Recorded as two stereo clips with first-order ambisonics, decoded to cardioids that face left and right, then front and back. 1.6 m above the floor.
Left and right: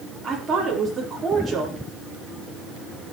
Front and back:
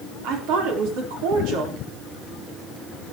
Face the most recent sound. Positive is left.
turn(degrees=-165)